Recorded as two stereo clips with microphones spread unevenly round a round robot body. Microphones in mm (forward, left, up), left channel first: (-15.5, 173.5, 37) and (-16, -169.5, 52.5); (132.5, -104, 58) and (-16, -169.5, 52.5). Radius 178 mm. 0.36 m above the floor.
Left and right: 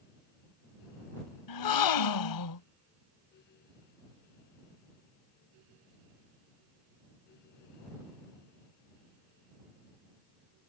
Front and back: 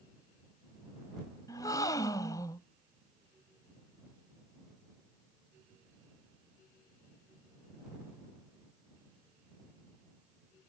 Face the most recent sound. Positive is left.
turn(degrees=100)